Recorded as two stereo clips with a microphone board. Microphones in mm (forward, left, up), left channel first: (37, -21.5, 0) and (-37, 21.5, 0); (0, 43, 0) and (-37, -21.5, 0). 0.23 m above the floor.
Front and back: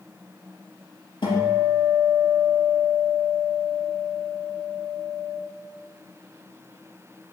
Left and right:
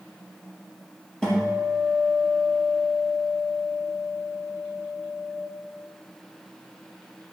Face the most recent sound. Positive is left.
turn(degrees=-20)